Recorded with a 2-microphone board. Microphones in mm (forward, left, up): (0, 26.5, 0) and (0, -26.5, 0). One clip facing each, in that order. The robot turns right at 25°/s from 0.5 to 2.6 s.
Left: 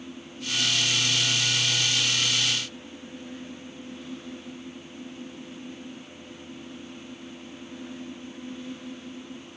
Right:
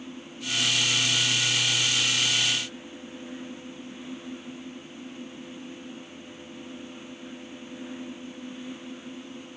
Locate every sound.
Only background noise.